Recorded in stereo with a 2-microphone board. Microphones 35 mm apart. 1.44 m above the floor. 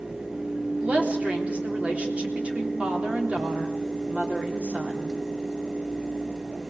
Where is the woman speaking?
40° right (ahead or behind), 3.5 m.